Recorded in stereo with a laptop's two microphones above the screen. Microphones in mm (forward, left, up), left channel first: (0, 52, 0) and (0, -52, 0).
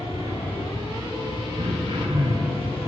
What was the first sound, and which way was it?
A fan, 70° left (ahead or behind).